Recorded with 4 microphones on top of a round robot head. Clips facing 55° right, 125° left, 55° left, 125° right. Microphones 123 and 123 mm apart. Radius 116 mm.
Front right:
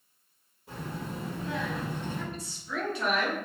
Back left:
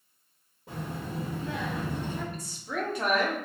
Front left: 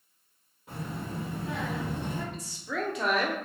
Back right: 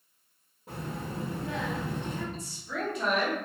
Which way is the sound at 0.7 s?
170° left.